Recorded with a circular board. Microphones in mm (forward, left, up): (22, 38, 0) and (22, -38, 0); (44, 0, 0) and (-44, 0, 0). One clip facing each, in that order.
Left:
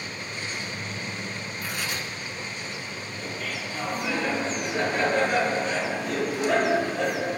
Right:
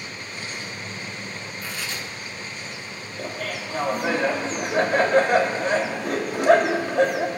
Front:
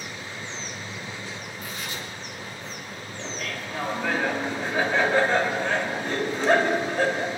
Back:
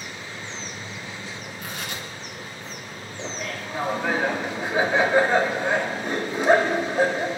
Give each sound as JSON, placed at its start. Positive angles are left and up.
{"t": 1.6, "sound": "tearing paper", "azimuth_deg": 165, "distance_m": 2.5}
{"t": 3.2, "sound": "laughter", "azimuth_deg": -105, "distance_m": 2.0}